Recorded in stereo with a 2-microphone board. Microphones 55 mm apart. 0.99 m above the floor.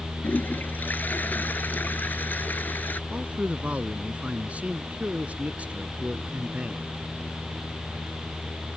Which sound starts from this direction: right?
A man speaking, at 3.1 s.